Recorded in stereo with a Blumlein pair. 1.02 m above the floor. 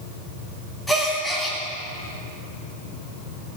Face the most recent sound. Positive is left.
turn(degrees=5)